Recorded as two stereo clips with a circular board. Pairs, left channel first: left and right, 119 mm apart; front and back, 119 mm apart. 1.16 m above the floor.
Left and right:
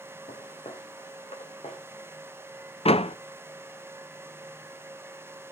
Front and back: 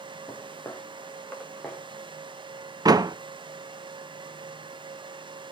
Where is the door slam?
125° left, 0.6 m.